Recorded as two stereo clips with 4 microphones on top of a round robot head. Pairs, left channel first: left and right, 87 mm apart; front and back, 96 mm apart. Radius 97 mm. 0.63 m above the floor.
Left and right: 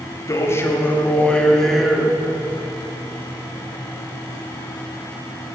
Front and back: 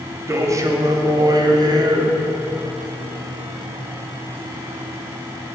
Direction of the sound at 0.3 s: 130° left.